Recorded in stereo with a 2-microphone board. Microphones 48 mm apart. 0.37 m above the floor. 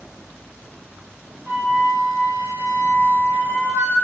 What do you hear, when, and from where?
1.5 s a flute: 25° right (ahead or behind), 1.6 m